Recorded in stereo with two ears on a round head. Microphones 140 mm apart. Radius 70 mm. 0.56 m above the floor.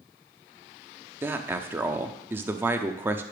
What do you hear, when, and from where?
1.2 s a man speaking: 15° right (ahead or behind), 0.8 m